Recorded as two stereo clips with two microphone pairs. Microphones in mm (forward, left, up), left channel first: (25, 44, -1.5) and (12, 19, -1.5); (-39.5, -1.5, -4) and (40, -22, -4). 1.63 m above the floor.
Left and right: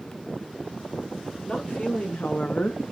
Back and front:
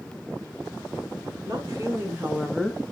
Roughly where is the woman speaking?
Ahead left.